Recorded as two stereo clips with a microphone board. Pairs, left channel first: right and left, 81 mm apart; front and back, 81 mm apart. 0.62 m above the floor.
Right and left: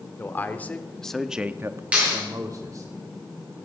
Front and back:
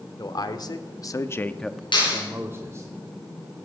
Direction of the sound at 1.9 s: 15° left.